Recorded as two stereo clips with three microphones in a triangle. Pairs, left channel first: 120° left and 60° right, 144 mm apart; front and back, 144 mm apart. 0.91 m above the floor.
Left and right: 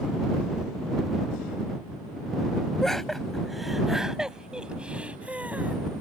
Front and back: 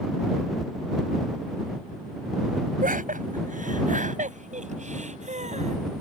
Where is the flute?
I don't hear a flute.